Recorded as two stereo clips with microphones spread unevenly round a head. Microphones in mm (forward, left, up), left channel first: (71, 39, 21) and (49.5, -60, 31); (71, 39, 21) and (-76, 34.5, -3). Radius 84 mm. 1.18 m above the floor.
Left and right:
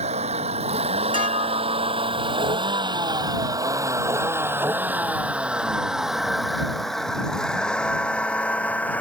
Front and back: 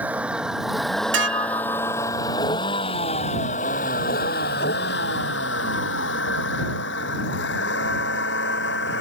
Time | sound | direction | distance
0.0 | a vehicle | 95° right | ?
1.1 | dishes clattering | 165° right | ?